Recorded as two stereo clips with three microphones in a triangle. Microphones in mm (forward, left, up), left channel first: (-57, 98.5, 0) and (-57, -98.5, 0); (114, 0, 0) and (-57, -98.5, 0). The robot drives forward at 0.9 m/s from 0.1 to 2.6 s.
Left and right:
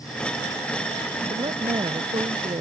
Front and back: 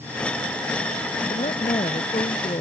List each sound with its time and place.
1.3 s a woman speaking: 25° right